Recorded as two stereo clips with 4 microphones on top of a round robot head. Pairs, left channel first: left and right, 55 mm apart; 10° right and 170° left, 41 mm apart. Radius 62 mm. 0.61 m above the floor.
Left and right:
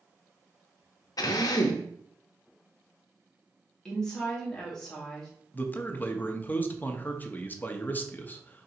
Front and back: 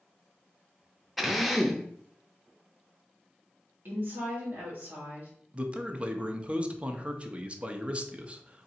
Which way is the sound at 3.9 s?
165° left.